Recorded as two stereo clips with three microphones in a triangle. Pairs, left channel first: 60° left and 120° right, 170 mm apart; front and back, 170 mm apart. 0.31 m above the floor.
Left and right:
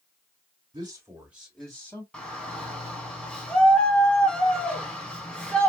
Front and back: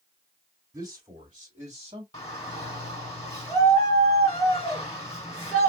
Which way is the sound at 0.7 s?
130° right.